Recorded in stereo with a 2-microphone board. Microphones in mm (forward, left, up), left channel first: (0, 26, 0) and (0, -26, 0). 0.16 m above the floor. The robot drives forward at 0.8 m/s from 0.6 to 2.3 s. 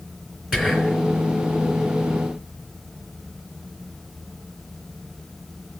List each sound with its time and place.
0.5 s whispering: 10° right (ahead or behind), 2.5 m